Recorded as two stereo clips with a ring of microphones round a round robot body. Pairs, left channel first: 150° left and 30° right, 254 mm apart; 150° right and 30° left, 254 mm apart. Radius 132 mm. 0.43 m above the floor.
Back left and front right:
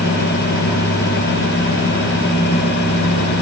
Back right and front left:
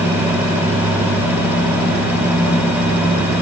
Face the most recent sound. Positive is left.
No sound to turn to.